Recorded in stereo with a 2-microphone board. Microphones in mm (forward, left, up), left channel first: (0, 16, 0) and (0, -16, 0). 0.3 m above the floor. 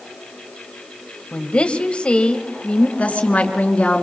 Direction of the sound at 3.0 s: 45° left (ahead or behind).